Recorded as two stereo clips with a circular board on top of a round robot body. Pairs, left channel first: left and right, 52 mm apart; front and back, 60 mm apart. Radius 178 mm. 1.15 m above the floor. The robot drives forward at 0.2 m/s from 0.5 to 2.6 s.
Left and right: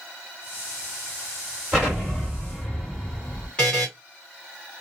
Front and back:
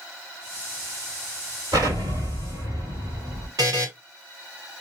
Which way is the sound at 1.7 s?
170° left.